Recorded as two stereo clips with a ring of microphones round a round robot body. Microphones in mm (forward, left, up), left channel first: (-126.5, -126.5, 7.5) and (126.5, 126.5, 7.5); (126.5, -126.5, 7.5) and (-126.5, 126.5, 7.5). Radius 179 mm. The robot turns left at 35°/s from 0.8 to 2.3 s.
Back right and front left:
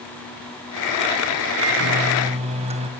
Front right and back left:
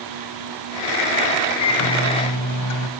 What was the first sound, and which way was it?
A microwave, straight ahead.